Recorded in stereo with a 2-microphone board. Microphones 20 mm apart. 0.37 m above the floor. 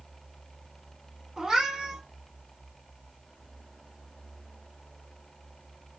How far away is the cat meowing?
About 1.5 m.